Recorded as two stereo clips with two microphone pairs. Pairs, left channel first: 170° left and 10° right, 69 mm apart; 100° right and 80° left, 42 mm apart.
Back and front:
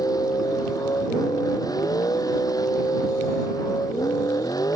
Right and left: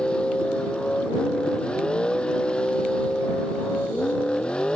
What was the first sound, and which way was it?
A vehicle, 165° right.